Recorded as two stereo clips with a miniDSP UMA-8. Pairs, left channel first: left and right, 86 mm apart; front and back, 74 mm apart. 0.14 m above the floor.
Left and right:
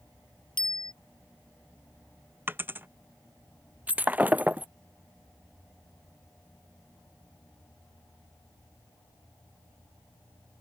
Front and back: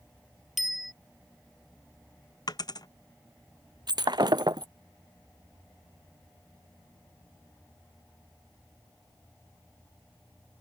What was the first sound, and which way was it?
A bicycle bell, 90° left.